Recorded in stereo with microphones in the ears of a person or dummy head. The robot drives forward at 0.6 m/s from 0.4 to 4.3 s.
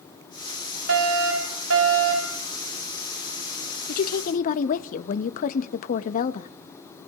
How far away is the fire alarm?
About 5.5 m.